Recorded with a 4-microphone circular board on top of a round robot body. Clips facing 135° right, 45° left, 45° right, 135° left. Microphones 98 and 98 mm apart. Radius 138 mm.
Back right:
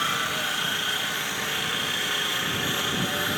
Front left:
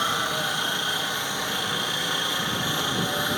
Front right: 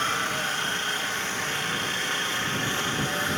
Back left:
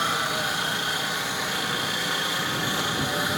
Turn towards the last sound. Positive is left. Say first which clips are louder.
# front left 2 dB, back left 2 dB
turn(degrees=75)